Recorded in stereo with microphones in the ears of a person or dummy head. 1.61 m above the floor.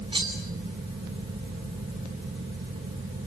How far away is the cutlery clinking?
About 2.5 m.